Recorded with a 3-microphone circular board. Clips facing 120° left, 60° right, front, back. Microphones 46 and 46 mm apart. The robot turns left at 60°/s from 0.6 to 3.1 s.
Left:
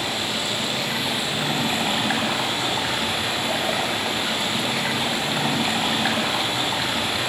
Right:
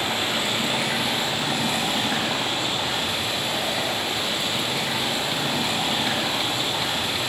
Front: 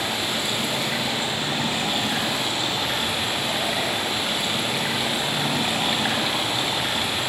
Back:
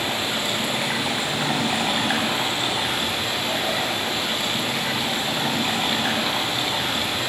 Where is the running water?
125° right, 8 m; by 7.3 s 85° left, 8 m.